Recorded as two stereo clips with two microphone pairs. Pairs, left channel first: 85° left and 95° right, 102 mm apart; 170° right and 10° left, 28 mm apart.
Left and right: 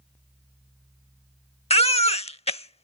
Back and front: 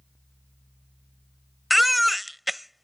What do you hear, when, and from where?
1.7 s a baby crying: 95° left